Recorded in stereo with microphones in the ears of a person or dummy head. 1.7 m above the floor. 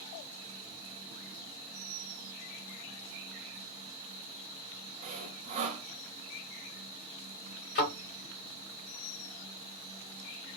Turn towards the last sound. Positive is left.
turn(degrees=45)  # may be behind; listen again after turning